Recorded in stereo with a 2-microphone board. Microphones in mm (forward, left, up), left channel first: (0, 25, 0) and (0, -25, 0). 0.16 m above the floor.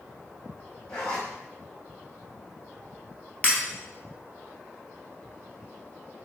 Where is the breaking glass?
30° left (ahead or behind), 1.3 m.